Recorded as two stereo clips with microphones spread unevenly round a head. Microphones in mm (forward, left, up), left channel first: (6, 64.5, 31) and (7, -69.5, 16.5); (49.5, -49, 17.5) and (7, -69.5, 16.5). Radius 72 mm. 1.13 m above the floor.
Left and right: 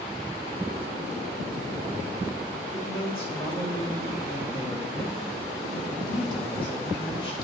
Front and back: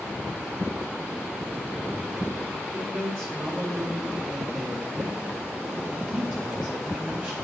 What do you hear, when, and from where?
2.7 s a man speaking: 145° left, 2.5 m